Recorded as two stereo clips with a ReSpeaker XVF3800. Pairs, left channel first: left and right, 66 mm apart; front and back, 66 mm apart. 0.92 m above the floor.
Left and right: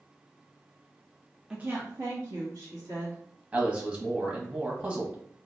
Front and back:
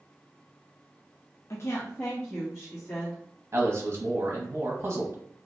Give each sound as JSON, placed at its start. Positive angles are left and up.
{"t": 1.5, "sound": "a woman speaking", "azimuth_deg": -15, "distance_m": 0.7}
{"t": 3.5, "sound": "a man speaking", "azimuth_deg": -150, "distance_m": 1.0}